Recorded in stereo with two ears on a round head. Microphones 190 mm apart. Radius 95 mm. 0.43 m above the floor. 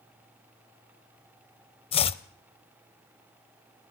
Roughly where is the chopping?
Left.